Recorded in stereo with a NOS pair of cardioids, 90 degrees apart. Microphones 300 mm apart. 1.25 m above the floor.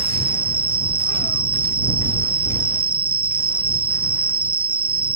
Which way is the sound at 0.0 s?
30° right.